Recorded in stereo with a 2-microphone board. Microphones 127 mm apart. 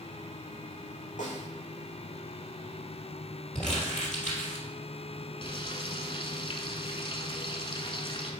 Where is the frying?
45° left (ahead or behind), 1.1 m.